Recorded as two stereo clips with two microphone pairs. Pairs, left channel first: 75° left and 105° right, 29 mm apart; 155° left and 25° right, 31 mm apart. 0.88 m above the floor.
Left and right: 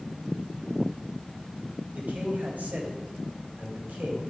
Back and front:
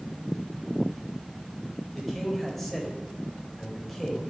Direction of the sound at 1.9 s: 125° right.